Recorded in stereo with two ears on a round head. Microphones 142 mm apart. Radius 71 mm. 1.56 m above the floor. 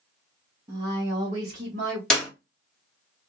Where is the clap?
5° left (ahead or behind), 1.9 m.